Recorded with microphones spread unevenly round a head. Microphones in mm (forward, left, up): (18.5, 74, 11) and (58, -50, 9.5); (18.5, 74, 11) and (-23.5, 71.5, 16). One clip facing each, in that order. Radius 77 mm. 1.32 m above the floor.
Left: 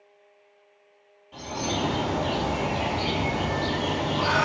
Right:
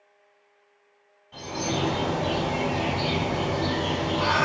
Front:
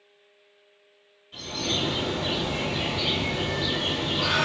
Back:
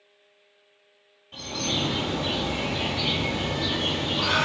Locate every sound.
1.3 s a bird: 175° right, 1.7 m